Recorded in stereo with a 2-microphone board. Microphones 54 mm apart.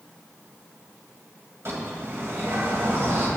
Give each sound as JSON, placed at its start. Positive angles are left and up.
{"t": 1.6, "sound": "a bird", "side_deg": -50, "distance_m": 1.8}